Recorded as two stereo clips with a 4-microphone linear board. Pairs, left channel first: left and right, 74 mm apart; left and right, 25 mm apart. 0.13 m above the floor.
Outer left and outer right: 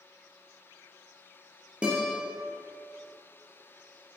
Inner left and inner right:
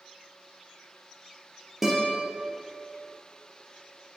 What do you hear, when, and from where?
1.8 s a guitar: 15° right (ahead or behind), 3.5 m